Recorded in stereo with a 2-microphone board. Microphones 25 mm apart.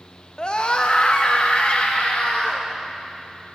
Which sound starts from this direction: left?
A scream, at 0.4 s.